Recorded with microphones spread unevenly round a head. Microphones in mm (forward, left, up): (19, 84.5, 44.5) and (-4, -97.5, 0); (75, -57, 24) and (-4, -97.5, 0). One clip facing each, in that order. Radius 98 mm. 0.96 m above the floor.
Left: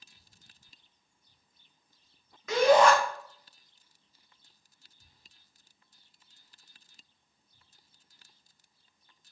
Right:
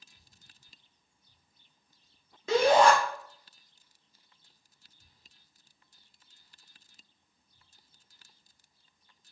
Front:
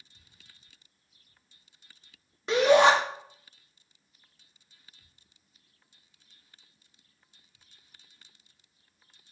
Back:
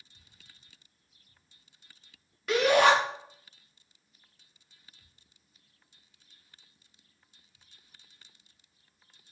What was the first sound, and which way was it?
A shout, 40° right.